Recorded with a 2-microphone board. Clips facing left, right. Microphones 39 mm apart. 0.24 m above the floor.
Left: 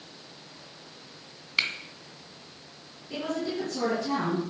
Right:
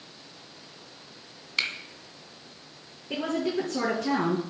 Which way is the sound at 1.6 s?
10° left (ahead or behind).